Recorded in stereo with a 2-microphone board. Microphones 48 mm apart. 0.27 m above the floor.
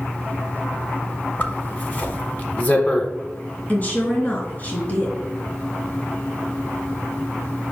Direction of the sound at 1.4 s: 35° left (ahead or behind).